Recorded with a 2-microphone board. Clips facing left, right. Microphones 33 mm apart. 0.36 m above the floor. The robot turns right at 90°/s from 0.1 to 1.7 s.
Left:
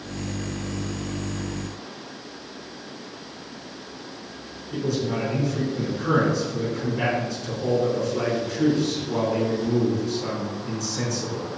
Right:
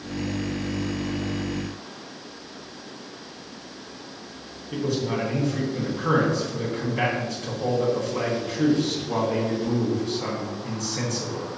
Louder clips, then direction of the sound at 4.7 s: Even; 65° right (ahead or behind).